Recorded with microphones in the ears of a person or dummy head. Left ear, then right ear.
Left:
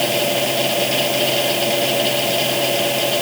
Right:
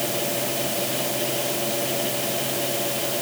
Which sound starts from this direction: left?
A fan, at 0.0 s.